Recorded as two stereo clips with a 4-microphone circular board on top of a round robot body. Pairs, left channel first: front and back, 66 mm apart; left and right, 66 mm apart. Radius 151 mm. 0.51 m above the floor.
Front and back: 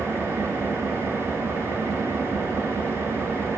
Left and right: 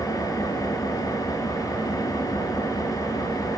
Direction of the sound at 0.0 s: 125° left.